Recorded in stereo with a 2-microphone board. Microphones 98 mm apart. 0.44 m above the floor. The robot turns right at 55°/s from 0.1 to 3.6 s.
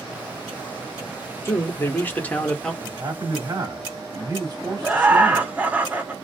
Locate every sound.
1.4 s a man speaking: 25° left (ahead or behind), 0.8 m; by 2.7 s 5° left (ahead or behind), 0.8 m
2.8 s a man speaking: 120° right, 1.3 m; by 5.5 s 80° right, 1.3 m
4.8 s laughter: 15° right (ahead or behind), 1.0 m